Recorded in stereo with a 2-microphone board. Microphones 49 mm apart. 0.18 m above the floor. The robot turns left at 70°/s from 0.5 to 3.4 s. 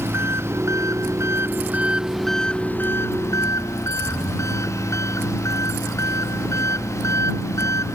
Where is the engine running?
60° right; by 8.0 s 100° left.